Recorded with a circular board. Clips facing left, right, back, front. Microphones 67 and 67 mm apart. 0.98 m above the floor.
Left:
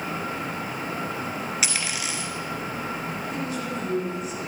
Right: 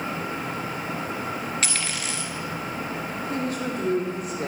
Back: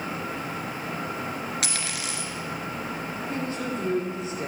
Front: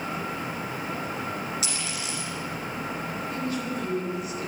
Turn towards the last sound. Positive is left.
turn(degrees=-120)